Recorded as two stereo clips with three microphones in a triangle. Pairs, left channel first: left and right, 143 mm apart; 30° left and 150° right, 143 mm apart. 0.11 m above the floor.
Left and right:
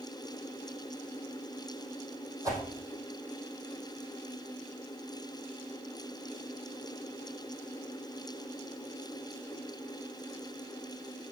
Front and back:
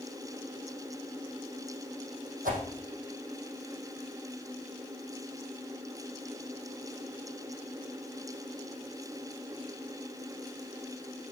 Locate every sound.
2.5 s a whoosh: 155° right, 3 m